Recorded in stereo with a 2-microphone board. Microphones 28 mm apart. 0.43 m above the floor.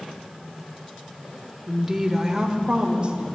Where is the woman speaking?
Centre (ahead or behind), 1.2 m; by 3.2 s 35° right (ahead or behind), 2 m.